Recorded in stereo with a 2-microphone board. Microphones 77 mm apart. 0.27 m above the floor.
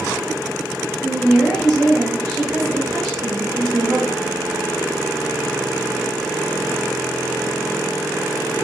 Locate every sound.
1.0 s a woman speaking: 10° left (ahead or behind), 0.9 m